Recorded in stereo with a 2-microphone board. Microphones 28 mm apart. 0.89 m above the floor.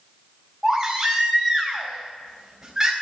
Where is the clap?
I don't hear a clap.